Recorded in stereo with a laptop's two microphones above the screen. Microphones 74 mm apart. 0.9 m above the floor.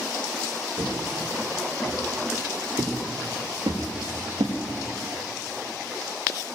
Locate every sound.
0.8 s footsteps: 60° right (ahead or behind), 8 m; by 4.6 s 65° right (ahead or behind), 5.5 m